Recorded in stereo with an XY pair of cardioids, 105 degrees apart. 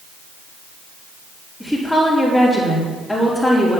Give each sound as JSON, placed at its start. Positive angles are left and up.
{"t": 1.6, "sound": "a woman speaking", "azimuth_deg": 10, "distance_m": 4.5}